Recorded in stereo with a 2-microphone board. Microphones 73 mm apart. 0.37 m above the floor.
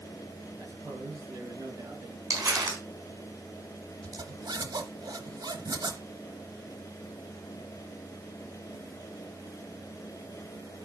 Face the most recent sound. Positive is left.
turn(degrees=-70)  # may be behind; listen again after turning